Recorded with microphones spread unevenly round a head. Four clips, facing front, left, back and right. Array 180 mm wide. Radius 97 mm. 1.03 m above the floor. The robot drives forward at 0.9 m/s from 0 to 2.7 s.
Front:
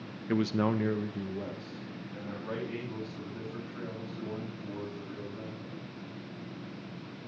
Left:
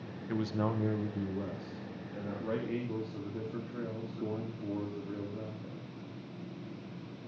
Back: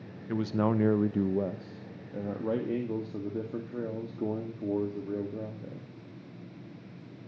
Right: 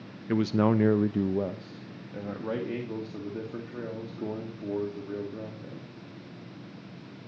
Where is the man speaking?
40° right, 0.8 m; by 5.9 s 165° right, 1.7 m.